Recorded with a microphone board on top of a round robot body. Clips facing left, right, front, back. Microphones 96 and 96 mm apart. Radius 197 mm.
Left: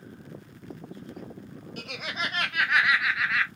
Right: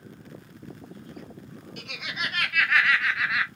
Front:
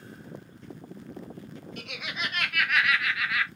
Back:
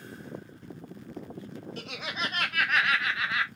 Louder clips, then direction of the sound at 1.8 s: Left 1 dB, back 1 dB; 130° left.